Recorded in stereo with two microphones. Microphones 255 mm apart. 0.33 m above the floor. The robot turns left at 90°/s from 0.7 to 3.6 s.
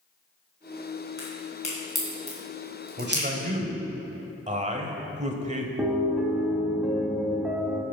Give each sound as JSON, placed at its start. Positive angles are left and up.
{"t": 1.2, "sound": "a crack", "side_deg": 60, "distance_m": 4.0}
{"t": 3.0, "sound": "a man speaking", "azimuth_deg": -80, "distance_m": 1.3}
{"t": 5.8, "sound": "a piano", "side_deg": -5, "distance_m": 1.1}